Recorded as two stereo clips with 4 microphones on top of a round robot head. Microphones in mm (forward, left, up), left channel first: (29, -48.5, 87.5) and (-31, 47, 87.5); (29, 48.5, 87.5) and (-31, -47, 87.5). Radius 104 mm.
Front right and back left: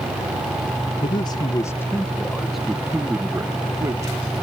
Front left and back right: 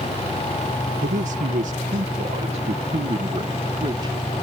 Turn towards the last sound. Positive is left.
turn(degrees=-175)